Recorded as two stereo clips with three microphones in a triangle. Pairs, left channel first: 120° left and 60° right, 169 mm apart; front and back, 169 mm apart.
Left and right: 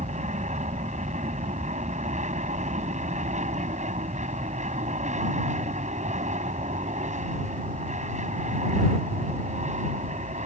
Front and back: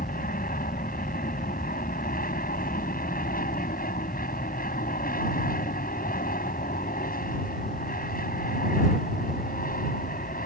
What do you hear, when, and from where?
0.0 s an aircraft: 20° right